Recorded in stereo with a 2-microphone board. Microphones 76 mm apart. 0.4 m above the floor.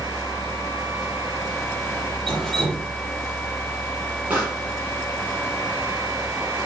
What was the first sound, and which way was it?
Dripping, 5° left (ahead or behind).